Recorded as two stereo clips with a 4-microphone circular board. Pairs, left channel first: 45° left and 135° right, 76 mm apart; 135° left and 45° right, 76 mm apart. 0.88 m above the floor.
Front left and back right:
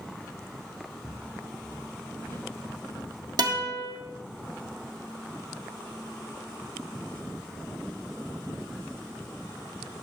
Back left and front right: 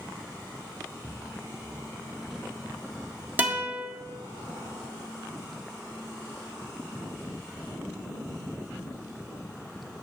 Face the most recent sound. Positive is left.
turn(degrees=-110)